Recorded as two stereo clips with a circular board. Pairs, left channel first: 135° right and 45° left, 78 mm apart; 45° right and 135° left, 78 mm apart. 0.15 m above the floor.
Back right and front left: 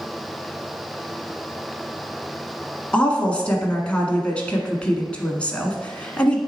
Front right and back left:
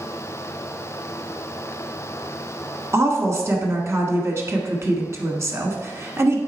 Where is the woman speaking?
160° left, 1.4 m.